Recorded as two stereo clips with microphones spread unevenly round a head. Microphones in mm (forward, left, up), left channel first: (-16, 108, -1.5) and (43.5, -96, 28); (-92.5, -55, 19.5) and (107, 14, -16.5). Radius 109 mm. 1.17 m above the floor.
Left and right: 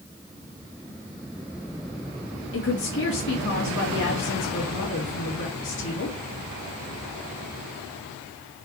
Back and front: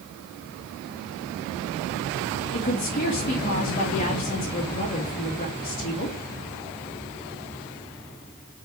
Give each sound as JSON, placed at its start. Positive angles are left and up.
{"t": 2.5, "sound": "a woman speaking", "azimuth_deg": 145, "distance_m": 2.5}